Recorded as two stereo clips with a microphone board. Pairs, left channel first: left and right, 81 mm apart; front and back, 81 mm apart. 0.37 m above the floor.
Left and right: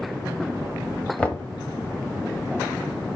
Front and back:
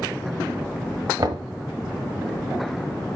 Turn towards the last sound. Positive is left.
turn(degrees=165)